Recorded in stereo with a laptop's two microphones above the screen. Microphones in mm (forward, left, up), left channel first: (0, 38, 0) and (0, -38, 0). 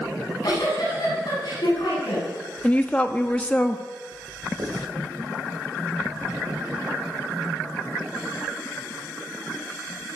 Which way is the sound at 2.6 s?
20° left (ahead or behind).